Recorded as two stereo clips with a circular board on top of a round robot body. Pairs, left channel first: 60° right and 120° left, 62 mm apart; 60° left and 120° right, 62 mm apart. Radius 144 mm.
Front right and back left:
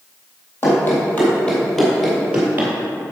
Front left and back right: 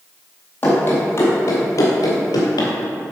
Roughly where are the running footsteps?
Ahead.